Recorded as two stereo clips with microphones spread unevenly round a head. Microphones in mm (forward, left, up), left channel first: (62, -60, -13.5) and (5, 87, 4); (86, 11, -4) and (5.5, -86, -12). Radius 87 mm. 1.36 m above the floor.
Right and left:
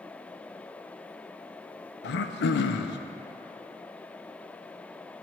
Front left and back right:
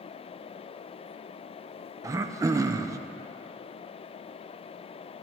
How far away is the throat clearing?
About 0.6 m.